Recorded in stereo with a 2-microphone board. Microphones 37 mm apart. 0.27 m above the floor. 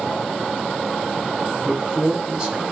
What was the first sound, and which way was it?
A man speaking, 5° right (ahead or behind).